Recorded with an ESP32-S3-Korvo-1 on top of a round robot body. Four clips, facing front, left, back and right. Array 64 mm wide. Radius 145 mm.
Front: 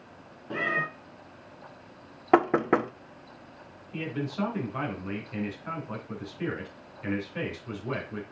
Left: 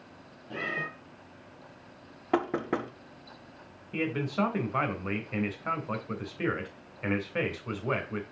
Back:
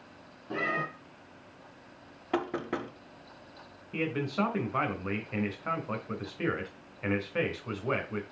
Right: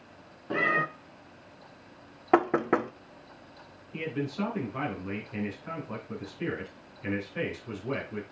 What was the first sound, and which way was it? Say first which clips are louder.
A cat meowing: right 7 dB, front 3 dB; 80° right.